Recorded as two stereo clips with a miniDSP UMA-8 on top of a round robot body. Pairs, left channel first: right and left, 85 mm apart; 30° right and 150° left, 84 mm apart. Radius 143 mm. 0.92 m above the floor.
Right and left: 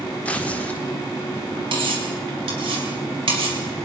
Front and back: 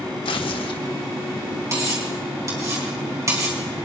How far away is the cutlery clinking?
About 5 m.